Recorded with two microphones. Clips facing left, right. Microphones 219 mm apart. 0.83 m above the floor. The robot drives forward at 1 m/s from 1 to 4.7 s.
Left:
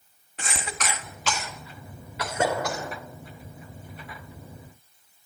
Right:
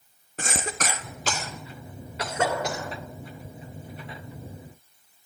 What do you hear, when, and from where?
0.4 s a cough: 45° right (ahead or behind), 1.4 m; by 2.9 s 20° right (ahead or behind), 3 m
2.2 s a gunshot: 30° left (ahead or behind), 4.5 m; by 2.9 s 25° left (ahead or behind), 5.5 m